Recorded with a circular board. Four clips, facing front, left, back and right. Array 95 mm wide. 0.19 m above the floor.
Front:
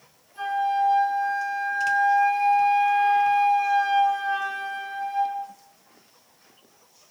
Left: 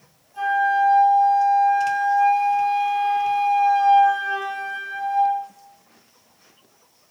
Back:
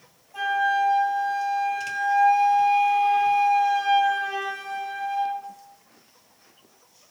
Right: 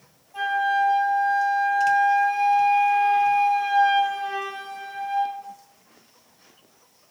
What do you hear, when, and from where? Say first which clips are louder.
0.3 s a flute: left 3 dB, back 1 dB; 145° right, 6 m